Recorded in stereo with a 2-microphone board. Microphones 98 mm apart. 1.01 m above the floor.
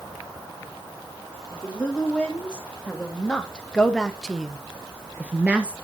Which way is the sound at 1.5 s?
10° left (ahead or behind).